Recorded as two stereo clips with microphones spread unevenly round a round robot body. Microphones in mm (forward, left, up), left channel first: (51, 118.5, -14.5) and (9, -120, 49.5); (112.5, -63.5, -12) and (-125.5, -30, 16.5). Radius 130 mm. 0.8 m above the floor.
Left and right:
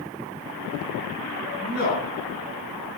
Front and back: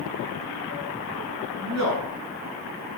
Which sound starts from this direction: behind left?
A man speaking, at 1.6 s.